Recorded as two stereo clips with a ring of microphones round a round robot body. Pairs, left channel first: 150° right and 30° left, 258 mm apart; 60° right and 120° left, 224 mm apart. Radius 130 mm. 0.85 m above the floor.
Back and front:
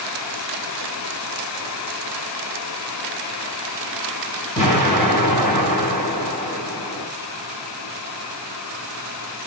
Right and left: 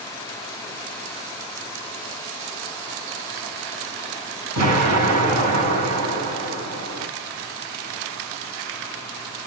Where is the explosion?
140° left, 6.5 m.